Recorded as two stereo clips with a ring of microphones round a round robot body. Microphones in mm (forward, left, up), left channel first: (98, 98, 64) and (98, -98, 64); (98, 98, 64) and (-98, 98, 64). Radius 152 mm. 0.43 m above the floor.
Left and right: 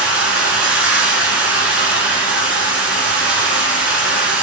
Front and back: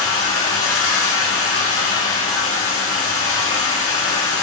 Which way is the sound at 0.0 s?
5° right.